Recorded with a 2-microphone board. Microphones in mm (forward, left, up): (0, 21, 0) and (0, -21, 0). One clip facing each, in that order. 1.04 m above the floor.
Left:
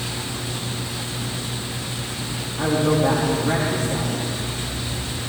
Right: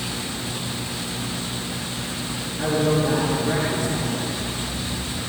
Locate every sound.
2.6 s a man speaking: 50° left (ahead or behind), 1.8 m